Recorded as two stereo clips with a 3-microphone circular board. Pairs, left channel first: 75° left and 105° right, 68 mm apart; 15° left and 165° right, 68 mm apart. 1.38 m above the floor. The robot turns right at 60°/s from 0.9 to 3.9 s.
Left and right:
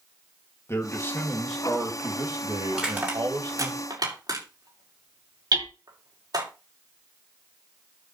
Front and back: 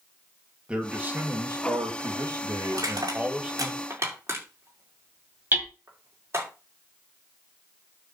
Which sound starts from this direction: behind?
Crushing, at 2.7 s.